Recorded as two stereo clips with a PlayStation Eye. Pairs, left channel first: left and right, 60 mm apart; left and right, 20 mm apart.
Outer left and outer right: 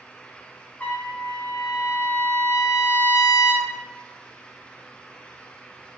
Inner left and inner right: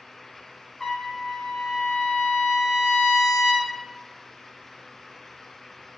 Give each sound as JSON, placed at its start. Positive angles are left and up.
{"t": 0.8, "sound": "a trumpet", "side_deg": 25, "distance_m": 0.7}